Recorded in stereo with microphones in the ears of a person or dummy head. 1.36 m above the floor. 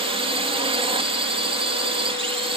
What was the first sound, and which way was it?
A drone, 25° right (ahead or behind).